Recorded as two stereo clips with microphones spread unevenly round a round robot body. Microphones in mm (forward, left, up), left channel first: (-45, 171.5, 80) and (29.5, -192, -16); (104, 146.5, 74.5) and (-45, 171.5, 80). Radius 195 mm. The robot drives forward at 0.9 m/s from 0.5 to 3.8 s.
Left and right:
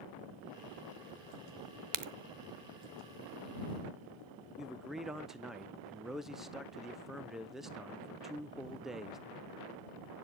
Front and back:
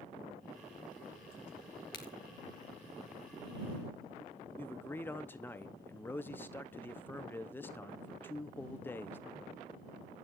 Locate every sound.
1.9 s a crack: 55° right, 0.8 m; by 2.1 s 65° right, 0.7 m
4.6 s a man speaking: 45° right, 0.5 m